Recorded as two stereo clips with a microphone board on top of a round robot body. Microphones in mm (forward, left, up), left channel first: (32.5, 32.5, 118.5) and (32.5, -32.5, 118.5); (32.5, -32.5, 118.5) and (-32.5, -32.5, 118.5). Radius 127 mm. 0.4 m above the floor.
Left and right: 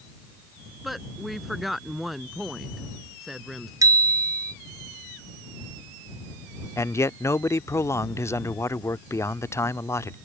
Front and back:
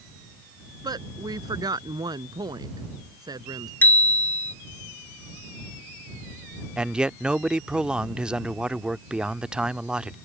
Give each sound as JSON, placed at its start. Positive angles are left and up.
{"t": 0.8, "sound": "a woman speaking", "azimuth_deg": 180}
{"t": 3.8, "sound": "a bicycle bell", "azimuth_deg": -65}
{"t": 6.8, "sound": "a man speaking", "azimuth_deg": 105}